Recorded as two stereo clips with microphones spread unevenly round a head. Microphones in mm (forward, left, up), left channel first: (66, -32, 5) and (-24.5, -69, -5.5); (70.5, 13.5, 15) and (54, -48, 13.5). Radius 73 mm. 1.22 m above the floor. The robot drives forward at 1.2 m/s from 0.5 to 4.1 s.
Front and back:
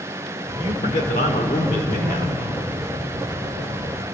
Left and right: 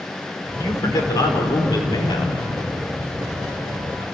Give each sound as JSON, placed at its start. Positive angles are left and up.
{"t": 0.6, "sound": "a man speaking", "azimuth_deg": 45, "distance_m": 4.5}